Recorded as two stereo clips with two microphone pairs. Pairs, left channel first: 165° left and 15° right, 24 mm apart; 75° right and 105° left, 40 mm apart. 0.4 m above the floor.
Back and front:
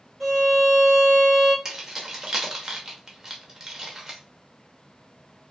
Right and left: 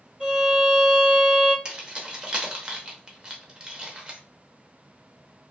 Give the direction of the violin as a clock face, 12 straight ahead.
10 o'clock.